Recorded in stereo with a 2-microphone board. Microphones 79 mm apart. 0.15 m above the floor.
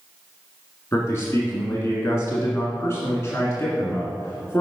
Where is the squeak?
I don't hear a squeak.